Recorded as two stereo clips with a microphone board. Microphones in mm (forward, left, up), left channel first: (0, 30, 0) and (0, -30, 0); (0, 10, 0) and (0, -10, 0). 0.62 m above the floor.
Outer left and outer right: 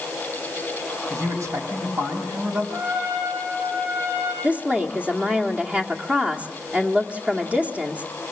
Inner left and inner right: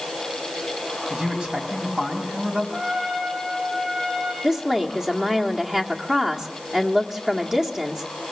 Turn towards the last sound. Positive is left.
turn(degrees=-25)  # may be behind; listen again after turning